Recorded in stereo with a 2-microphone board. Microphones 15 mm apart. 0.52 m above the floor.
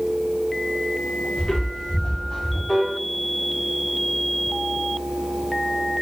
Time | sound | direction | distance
1.4 | footsteps | 70° left (ahead or behind) | 2.5 m
2.7 | a piano | 20° left (ahead or behind) | 1.4 m